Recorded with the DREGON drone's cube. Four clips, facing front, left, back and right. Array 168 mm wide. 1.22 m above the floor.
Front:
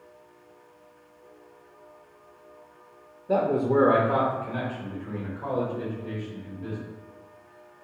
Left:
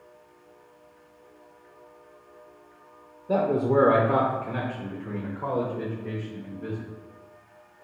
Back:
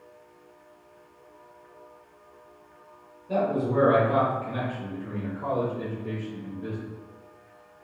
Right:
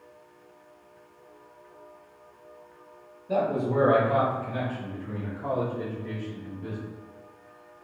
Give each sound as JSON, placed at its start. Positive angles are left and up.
{"t": 3.3, "sound": "a man speaking", "azimuth_deg": 45, "distance_m": 0.6}